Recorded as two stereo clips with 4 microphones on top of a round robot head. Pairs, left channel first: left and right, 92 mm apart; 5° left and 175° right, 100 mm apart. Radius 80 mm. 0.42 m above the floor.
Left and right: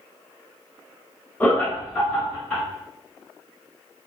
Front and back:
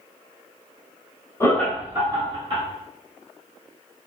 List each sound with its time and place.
1.4 s laughter: 35° left, 1.1 m; by 2.6 s 170° left, 1.6 m